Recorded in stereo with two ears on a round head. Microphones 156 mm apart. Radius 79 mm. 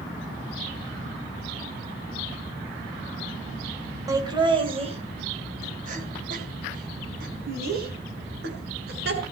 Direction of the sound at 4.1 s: 20° right (ahead or behind).